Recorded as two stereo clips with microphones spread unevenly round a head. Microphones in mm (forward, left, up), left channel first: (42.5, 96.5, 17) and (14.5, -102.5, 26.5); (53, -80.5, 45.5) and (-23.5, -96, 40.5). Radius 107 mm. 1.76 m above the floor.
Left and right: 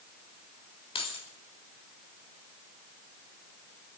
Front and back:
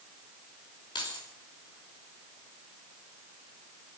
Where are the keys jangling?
20° left, 3 m.